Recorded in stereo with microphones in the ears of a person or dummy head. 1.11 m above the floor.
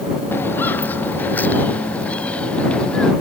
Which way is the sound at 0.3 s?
15° left (ahead or behind).